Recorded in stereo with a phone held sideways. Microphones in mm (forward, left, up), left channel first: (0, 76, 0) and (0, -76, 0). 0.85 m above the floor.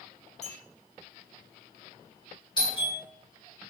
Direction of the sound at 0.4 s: 50° left (ahead or behind).